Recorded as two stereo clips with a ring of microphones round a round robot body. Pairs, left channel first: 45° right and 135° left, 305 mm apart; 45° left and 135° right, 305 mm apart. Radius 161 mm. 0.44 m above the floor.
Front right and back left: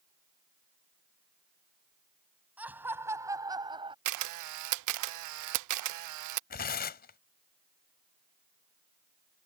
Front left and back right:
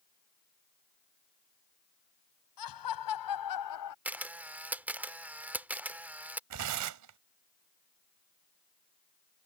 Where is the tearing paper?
105° right.